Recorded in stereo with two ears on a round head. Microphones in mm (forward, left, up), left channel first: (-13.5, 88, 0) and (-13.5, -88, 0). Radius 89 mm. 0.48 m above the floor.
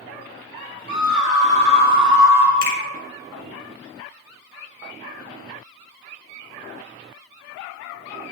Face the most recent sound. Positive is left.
turn(degrees=55)  # may be behind; listen again after turning